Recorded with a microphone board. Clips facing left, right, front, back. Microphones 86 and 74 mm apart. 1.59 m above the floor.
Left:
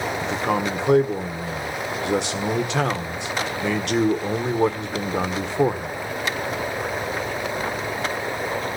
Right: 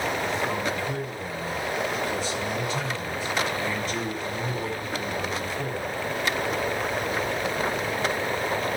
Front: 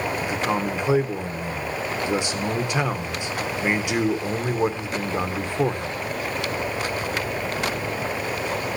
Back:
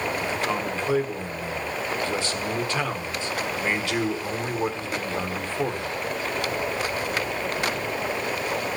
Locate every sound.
0.2 s a man speaking: 75° left, 1.5 m